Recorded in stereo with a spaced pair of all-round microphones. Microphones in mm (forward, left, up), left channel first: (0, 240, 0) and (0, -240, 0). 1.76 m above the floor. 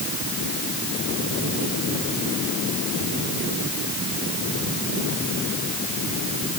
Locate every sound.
Only background noise.